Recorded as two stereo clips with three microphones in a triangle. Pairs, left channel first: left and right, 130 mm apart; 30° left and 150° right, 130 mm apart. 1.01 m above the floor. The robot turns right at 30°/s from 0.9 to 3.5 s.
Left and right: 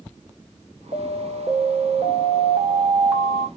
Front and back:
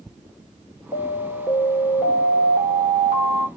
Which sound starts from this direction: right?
An alarm, at 0.9 s.